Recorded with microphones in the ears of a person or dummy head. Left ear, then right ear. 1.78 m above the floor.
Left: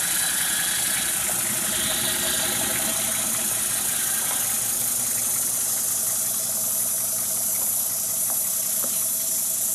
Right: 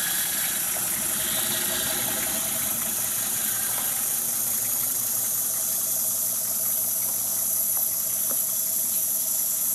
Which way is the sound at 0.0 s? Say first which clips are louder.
Left 3 dB; centre (ahead or behind).